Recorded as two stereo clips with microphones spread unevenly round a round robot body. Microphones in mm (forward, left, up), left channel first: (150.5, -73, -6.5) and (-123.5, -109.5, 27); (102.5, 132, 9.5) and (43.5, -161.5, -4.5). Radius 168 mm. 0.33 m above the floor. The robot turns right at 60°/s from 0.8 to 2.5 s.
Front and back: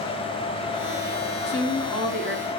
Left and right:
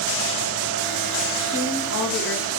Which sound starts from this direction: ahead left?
A woman speaking, at 1.5 s.